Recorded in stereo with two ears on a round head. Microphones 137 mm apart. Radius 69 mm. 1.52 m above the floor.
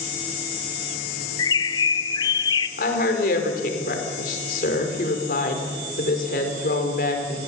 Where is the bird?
25° left (ahead or behind), 1.1 m.